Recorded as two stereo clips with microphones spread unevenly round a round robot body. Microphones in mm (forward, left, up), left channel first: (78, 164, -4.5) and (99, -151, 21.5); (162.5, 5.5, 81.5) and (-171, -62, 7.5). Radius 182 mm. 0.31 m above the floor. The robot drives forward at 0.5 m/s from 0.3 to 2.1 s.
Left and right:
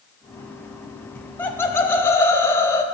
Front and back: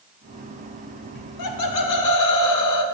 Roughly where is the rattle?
No rattle in this recording.